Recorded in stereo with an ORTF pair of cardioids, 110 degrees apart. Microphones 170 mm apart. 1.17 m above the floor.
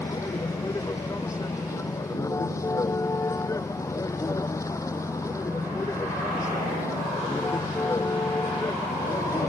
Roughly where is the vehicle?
Ahead.